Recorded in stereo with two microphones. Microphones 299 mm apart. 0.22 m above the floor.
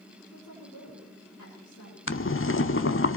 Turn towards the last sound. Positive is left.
turn(degrees=45)  # may be behind; listen again after turning